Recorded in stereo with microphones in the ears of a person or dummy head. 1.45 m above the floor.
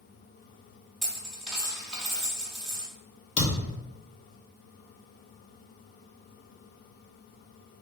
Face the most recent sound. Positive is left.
turn(degrees=45)  # may be behind; listen again after turning